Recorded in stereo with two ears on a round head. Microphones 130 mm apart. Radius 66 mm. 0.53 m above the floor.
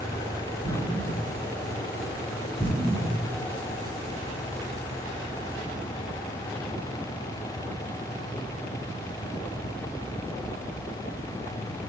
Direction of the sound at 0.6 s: 15° left (ahead or behind).